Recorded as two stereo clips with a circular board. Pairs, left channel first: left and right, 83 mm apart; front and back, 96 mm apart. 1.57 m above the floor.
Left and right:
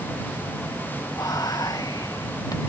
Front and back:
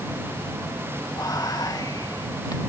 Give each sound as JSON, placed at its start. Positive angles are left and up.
{"t": 1.2, "sound": "whispering", "azimuth_deg": 50}